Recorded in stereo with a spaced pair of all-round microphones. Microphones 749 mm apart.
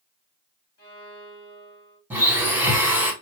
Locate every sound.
0.8 s a violin: 20° left (ahead or behind), 3.5 m
2.1 s a blender: 5° right (ahead or behind), 1.4 m